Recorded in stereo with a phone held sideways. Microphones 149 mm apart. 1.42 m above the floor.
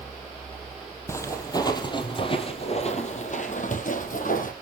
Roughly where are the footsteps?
Centre.